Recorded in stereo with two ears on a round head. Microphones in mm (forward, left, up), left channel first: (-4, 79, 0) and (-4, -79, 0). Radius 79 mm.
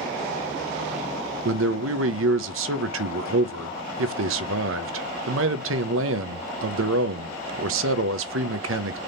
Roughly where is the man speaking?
Right.